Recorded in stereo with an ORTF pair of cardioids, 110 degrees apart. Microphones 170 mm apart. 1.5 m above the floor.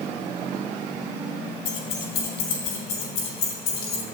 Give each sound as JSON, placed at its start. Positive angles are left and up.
{"t": 1.6, "sound": "keys jangling", "azimuth_deg": 65, "distance_m": 3.5}